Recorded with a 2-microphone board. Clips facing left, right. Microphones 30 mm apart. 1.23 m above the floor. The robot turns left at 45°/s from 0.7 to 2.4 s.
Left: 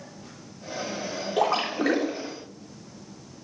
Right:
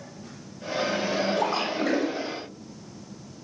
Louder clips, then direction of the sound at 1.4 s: Left 1 dB; 85° left.